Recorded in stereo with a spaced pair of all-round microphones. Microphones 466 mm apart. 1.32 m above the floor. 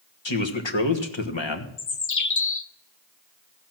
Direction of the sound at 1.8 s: 40° left (ahead or behind).